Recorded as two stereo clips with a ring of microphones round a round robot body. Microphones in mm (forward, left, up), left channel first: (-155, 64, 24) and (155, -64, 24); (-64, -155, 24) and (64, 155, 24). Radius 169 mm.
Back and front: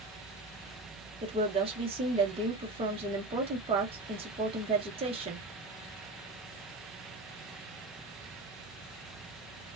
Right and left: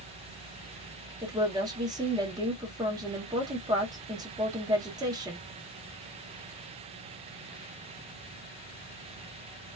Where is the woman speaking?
15° left, 0.8 m.